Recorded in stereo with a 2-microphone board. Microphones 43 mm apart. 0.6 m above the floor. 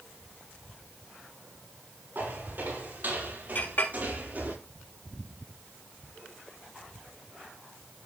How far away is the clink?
About 3 m.